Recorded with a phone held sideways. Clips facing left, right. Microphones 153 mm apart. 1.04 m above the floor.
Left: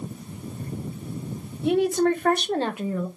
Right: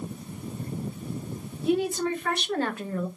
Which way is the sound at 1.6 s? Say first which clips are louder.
Left 5 dB; 75° left (ahead or behind).